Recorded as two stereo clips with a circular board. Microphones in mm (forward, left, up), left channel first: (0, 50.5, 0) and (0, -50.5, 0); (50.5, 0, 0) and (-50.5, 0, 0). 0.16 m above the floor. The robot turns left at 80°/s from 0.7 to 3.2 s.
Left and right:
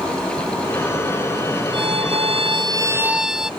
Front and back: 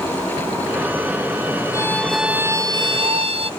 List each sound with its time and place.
1.7 s a violin: 55° right; by 3.5 s 175° right